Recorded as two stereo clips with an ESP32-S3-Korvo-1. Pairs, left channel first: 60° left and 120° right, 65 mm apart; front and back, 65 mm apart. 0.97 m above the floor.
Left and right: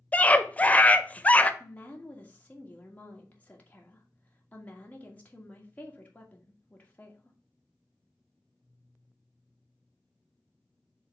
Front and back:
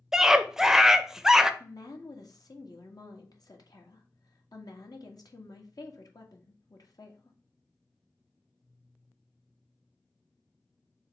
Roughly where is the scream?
Left.